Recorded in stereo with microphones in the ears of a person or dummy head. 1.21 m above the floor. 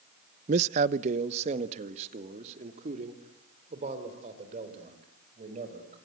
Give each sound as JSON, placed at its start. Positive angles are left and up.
{"t": 0.5, "sound": "a man speaking", "side_deg": -35, "distance_m": 0.5}